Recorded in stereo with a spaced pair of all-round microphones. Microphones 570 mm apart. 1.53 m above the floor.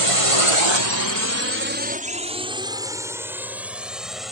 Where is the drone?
60° right (ahead or behind); by 4.3 s centre (ahead or behind).